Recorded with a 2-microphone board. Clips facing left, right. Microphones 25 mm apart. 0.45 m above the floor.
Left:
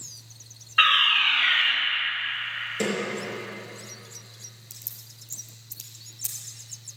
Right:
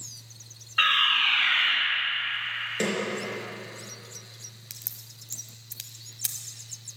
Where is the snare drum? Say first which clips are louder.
Left 1 dB; 15° right (ahead or behind), 3.5 m.